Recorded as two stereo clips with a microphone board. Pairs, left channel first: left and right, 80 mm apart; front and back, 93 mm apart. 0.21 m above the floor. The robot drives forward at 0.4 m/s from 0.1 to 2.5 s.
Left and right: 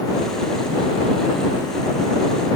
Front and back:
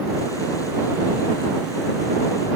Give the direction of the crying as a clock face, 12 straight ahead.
No crying in this recording.